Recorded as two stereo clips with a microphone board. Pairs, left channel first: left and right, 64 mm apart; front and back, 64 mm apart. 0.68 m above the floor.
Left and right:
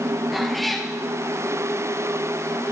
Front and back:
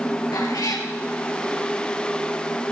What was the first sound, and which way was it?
A cat meowing, straight ahead.